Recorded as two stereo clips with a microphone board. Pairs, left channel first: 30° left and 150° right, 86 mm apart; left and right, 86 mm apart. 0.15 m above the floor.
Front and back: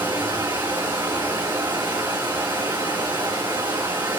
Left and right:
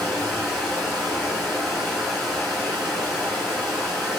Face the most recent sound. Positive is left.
turn(degrees=180)